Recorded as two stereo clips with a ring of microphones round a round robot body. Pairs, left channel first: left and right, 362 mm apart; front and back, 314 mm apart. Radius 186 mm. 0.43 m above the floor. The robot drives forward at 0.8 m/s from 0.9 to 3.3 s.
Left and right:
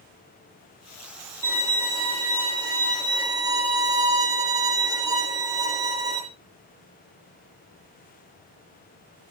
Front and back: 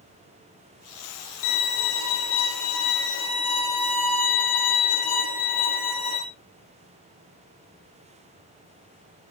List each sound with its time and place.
1.4 s a violin: 10° right, 9.5 m